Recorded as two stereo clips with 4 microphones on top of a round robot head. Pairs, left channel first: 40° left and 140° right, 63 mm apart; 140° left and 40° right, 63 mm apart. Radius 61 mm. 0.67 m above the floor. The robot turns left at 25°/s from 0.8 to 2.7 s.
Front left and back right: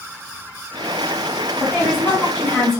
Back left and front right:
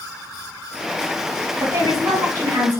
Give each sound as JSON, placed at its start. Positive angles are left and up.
{"t": 1.6, "sound": "a woman speaking", "azimuth_deg": -15, "distance_m": 2.0}